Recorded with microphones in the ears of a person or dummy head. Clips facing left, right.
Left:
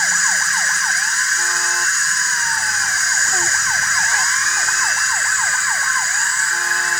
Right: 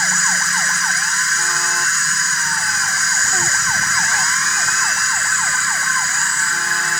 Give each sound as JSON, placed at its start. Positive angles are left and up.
{"t": 0.0, "sound": "an insect", "side_deg": -65}